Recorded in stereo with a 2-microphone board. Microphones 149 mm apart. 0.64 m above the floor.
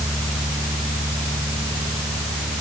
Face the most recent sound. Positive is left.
No sound to turn to.